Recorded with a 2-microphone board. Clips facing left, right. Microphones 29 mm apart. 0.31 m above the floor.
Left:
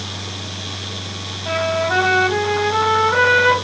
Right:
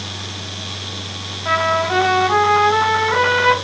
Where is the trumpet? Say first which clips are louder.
Right 2 dB; 25° right (ahead or behind), 1.9 m.